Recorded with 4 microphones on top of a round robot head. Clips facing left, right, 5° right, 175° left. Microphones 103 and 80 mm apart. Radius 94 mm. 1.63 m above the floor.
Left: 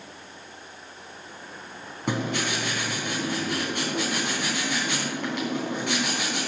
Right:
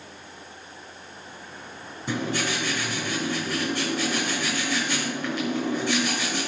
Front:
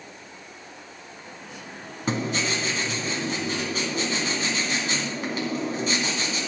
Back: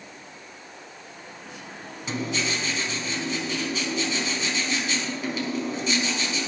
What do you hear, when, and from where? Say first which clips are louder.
2.1 s writing: even, front 2 dB; 45° left, 3.5 m